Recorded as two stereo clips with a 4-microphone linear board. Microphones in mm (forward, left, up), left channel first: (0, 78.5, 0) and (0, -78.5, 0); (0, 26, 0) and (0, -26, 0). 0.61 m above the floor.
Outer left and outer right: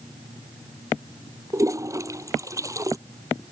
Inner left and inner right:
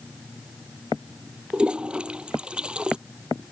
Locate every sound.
1.5 s a toilet flushing: 20° right (ahead or behind)